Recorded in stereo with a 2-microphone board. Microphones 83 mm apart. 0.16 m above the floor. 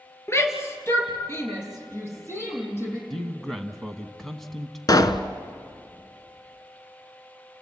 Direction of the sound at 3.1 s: 5° left (ahead or behind).